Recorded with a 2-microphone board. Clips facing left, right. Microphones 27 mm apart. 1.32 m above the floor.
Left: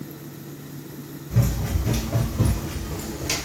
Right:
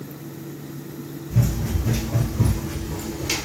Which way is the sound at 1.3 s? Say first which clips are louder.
Right 1 dB; 40° left (ahead or behind).